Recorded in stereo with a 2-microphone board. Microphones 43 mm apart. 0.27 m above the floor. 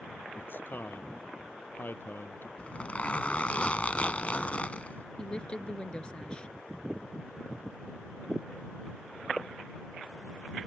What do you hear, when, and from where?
0.3 s a man speaking: 50° left (ahead or behind)
2.6 s a zipper: 35° left (ahead or behind)
5.2 s a woman speaking: 20° left (ahead or behind)